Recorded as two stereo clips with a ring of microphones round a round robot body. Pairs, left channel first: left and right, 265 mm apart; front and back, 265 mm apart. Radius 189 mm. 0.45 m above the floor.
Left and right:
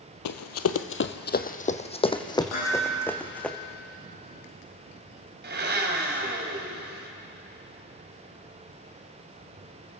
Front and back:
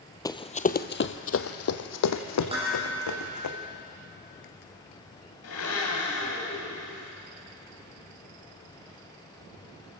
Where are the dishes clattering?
110° left, 9.5 m.